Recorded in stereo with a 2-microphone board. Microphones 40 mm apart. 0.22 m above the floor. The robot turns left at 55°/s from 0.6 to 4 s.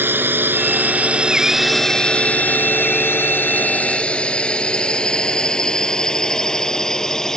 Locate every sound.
0.0 s a drone: 65° right (ahead or behind); by 7.4 s 15° left (ahead or behind)